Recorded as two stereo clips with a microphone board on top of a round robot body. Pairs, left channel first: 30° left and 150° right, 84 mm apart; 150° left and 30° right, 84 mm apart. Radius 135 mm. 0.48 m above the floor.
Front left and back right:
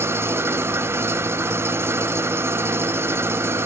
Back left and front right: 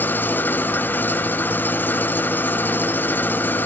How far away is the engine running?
About 1.0 m.